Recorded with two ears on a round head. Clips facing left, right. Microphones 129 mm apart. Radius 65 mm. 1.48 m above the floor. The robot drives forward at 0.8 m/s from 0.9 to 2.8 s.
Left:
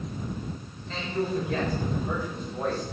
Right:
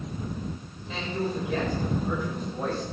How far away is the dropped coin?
I don't hear a dropped coin.